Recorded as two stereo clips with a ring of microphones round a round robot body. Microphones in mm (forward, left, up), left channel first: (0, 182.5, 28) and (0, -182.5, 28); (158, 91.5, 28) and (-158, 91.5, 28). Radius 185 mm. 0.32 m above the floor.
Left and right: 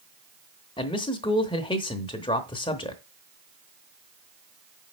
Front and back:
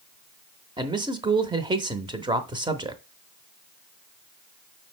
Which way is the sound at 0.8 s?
135° left.